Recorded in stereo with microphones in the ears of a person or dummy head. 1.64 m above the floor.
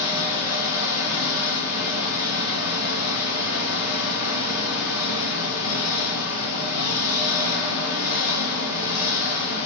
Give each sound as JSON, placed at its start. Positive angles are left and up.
{"t": 0.0, "sound": "an engine running", "side_deg": 75, "distance_m": 0.9}